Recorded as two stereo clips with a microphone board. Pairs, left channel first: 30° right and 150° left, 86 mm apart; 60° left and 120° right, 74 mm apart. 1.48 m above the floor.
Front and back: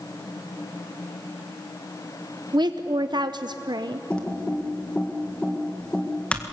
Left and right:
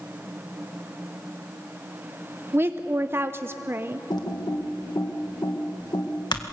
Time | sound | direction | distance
2.5 | a woman speaking | straight behind | 0.7 m
4.1 | typing on a keyboard | 45° left | 1.9 m